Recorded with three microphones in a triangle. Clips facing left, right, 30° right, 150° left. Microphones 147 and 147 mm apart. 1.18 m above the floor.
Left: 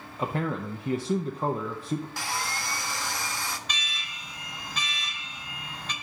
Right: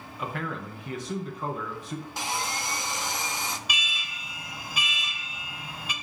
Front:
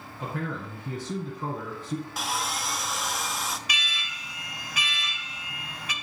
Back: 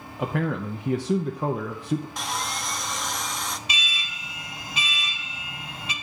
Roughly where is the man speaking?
Behind left.